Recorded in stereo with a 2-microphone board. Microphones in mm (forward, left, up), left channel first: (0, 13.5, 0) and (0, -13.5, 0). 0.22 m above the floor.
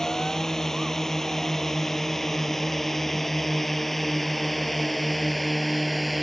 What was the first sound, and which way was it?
A drone, 20° left (ahead or behind).